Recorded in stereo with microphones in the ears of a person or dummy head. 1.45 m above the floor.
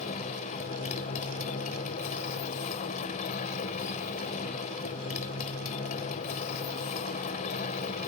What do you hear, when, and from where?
0.0 s a motorcycle: 45° left (ahead or behind)